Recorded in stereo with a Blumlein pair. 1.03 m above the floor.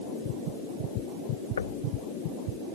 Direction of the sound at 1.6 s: 70° left.